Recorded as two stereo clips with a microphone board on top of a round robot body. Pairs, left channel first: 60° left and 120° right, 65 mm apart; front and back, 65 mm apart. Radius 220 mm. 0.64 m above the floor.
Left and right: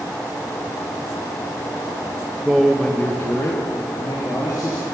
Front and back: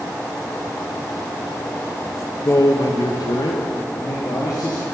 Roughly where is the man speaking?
Ahead right.